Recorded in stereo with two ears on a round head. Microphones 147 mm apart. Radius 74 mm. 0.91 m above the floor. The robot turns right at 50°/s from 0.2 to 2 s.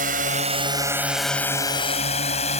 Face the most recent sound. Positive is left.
turn(degrees=40)  # may be behind; listen again after turning